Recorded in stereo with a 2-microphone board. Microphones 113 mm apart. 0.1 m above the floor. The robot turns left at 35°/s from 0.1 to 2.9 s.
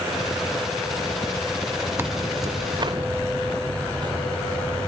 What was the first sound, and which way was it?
Tearing paper, 20° right (ahead or behind).